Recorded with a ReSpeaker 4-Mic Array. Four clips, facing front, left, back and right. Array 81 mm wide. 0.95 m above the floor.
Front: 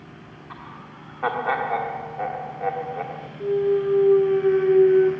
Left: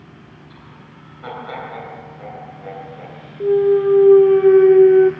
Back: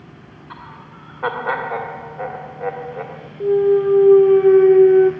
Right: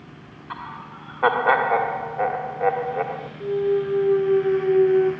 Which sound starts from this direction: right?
Laughter, at 0.5 s.